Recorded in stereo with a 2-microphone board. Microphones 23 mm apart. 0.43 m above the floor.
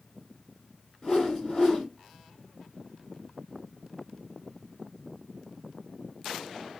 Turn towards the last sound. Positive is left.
turn(degrees=35)  # may be behind; listen again after turning